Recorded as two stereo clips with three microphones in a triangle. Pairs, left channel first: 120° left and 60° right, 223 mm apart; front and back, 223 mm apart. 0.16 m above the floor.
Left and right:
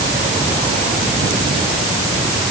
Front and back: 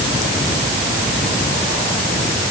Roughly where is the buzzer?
No buzzer in this recording.